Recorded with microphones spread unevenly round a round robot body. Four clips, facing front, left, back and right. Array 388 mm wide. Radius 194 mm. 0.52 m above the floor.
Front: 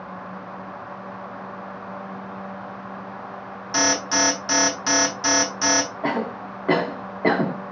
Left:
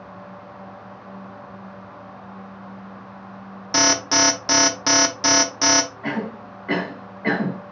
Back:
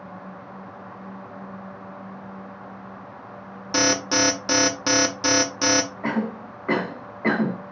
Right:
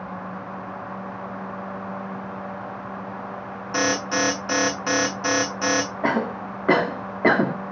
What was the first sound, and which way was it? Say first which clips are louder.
An alarm: left 2 dB, back 1 dB; 135° left.